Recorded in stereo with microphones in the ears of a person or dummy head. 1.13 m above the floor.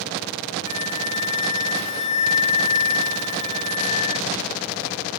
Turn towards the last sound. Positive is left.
turn(degrees=25)  # may be behind; listen again after turning